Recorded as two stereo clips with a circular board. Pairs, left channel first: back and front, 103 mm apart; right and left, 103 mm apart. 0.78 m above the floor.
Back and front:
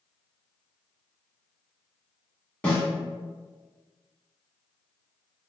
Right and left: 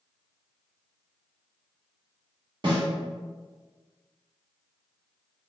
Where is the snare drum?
105° left, 1.1 m.